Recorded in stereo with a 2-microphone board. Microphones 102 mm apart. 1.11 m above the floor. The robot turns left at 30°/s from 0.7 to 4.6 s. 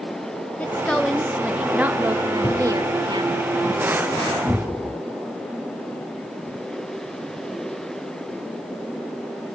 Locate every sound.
0.6 s a woman speaking: 20° left, 0.6 m; by 3.4 s 65° right, 0.6 m
2.4 s a cupboard door: 60° left (ahead or behind), 4 m; by 2.6 s 55° left (ahead or behind), 4 m
4.5 s a cupboard door: 25° left (ahead or behind), 0.6 m